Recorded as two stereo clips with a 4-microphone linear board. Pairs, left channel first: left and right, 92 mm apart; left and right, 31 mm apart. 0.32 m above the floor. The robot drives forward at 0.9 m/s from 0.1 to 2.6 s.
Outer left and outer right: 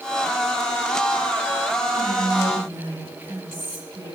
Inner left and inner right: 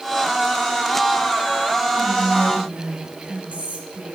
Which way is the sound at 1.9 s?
40° right (ahead or behind).